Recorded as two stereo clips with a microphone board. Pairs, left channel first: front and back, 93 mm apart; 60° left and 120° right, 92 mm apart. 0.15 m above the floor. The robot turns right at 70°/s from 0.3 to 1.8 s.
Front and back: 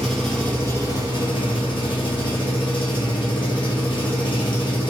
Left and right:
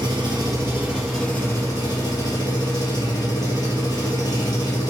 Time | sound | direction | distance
0.0 | an engine running | 85° right | 1.6 m